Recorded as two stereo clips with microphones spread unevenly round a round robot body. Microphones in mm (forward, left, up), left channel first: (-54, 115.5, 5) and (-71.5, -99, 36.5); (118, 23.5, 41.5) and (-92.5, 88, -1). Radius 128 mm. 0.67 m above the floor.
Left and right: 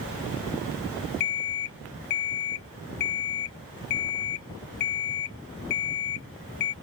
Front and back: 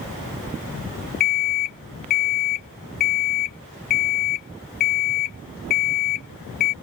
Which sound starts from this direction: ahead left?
An alarm clock, at 1.2 s.